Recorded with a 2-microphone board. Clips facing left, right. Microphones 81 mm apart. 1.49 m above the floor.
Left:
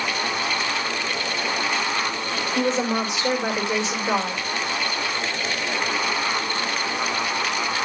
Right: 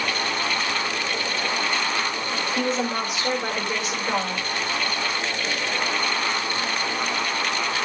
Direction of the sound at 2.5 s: 25° left (ahead or behind).